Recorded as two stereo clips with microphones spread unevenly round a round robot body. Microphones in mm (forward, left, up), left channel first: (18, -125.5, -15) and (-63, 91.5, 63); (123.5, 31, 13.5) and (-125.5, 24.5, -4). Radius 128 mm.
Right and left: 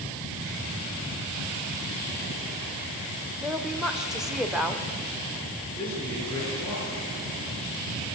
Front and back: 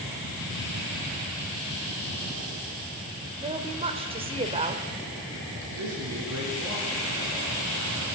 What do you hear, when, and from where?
3.4 s a woman speaking: 135° right, 1.6 m
5.8 s a man speaking: 145° right, 6.5 m